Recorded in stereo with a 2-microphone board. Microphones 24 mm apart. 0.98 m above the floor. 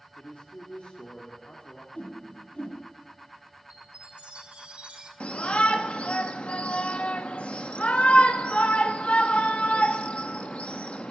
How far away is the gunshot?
No gunshot in this recording.